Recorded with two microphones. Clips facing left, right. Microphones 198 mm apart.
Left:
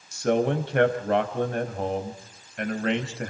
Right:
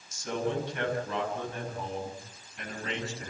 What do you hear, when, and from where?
0.1 s a man speaking: 80° left, 3.5 m